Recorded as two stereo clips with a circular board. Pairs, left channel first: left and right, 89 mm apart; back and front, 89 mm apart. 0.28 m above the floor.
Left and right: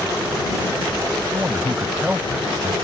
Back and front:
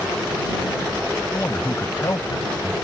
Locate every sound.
1.3 s a man speaking: 125° right; by 2.7 s 170° right